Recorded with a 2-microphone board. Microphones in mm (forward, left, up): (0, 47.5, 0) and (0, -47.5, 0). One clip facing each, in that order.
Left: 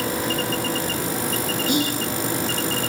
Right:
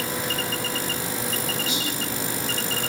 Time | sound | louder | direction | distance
1.7 | whispering | left 8 dB | 55° left (ahead or behind) | 0.6 m